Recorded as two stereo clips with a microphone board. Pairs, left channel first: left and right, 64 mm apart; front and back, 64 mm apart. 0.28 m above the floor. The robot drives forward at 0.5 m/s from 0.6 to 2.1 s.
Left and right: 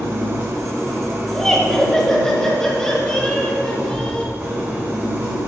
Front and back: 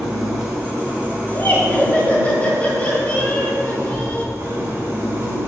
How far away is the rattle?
I don't hear a rattle.